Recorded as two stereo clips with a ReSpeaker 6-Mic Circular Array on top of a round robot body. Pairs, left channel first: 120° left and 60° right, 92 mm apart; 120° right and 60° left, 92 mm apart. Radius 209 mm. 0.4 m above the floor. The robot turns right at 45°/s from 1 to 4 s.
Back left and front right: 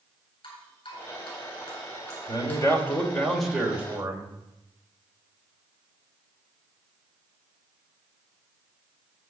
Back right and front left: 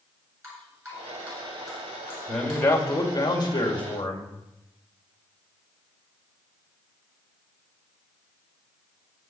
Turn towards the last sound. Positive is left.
turn(degrees=-125)